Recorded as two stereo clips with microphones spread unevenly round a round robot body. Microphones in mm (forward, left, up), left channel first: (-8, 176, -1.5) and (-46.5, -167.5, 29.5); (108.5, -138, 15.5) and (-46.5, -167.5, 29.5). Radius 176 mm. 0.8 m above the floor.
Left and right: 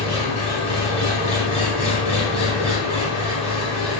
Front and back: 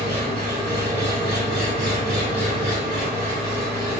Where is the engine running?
155° left, 2 m.